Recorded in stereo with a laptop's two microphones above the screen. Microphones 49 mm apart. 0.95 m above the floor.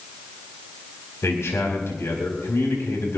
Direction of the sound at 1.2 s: 70° left (ahead or behind).